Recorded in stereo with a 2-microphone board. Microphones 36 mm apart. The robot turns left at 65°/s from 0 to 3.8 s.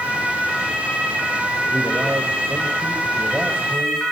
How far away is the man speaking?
About 6 m.